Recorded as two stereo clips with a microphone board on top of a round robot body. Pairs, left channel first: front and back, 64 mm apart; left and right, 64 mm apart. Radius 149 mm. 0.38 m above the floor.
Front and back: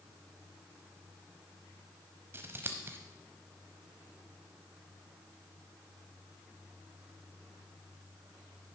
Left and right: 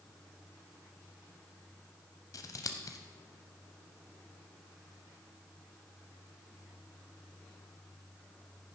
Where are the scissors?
125° left, 0.8 m.